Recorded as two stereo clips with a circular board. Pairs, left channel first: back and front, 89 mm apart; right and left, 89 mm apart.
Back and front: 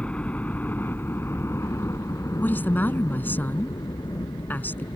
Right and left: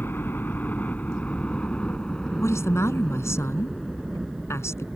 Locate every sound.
0.0 s a helicopter: 120° right; by 5.0 s 175° left
2.4 s a woman speaking: 125° right